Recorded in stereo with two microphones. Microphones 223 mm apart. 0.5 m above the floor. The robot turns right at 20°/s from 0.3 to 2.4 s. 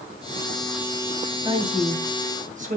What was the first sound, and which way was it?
A woman speaking, 15° right (ahead or behind).